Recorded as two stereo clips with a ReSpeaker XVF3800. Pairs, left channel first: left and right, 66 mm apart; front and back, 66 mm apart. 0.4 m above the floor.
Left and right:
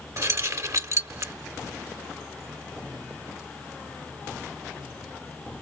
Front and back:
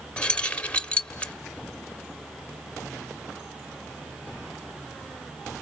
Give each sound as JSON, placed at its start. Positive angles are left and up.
{"t": 0.2, "sound": "keys jangling", "azimuth_deg": -65, "distance_m": 1.0}